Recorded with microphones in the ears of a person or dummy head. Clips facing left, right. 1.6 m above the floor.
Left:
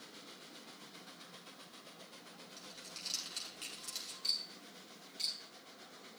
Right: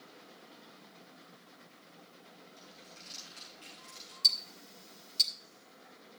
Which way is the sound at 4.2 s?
55° right (ahead or behind).